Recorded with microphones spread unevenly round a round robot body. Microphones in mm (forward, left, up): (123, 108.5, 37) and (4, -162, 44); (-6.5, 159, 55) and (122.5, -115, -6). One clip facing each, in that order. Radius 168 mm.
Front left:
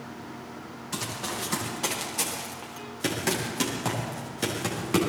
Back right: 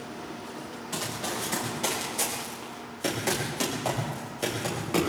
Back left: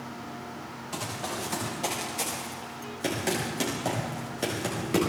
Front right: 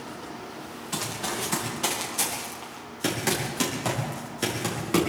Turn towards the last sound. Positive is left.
turn(degrees=10)